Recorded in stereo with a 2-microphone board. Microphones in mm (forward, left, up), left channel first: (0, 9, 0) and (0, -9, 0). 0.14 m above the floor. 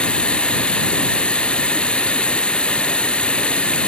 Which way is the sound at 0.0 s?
55° left (ahead or behind).